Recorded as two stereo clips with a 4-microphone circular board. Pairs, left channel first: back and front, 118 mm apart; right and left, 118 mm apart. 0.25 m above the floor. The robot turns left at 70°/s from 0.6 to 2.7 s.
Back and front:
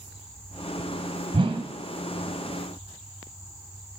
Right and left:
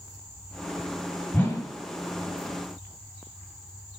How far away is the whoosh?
About 1.3 m.